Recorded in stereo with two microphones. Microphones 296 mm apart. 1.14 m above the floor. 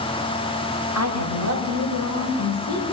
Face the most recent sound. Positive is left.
turn(degrees=75)  # may be behind; listen again after turning